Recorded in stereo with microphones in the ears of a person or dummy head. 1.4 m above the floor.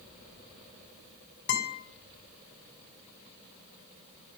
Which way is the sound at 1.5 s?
55° left (ahead or behind).